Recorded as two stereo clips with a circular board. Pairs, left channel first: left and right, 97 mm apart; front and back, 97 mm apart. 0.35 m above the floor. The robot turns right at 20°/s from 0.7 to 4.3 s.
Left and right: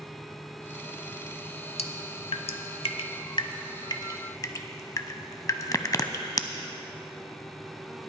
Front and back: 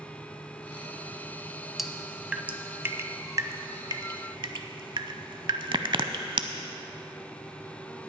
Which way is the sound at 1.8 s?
95° left.